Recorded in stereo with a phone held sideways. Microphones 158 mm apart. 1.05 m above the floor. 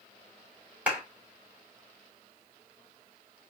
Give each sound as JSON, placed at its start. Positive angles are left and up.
{"t": 0.9, "sound": "a clap", "side_deg": -10, "distance_m": 2.5}